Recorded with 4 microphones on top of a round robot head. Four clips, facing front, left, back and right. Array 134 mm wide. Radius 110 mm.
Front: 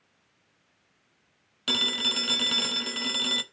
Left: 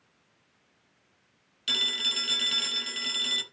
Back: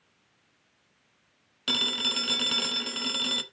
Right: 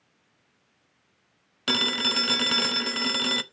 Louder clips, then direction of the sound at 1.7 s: Right 10 dB, front 1 dB; 85° right.